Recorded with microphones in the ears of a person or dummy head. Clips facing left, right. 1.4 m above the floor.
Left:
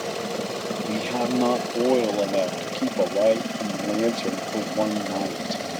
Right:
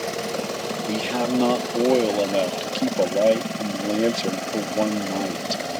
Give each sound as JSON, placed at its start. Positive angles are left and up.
{"t": 0.9, "sound": "a man speaking", "side_deg": -10}